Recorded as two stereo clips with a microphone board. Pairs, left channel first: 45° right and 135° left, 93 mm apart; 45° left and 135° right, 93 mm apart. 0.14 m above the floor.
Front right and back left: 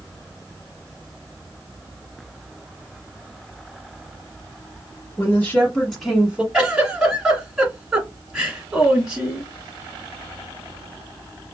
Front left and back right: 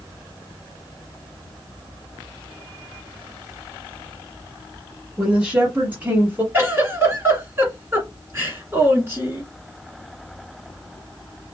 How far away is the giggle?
About 1.5 m.